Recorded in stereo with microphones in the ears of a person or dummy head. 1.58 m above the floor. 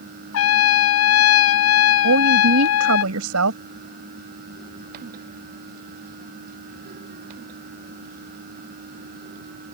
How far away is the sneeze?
No sneeze in this recording.